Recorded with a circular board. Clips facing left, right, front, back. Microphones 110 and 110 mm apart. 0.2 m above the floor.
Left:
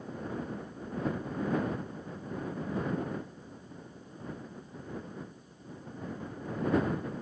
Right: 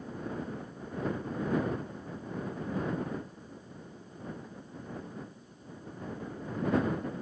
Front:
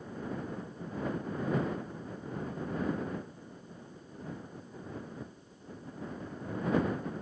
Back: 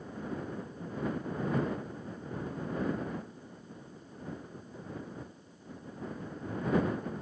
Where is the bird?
No bird in this recording.